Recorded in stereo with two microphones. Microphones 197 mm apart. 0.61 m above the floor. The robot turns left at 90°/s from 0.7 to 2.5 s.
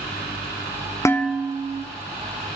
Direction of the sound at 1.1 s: 15° left.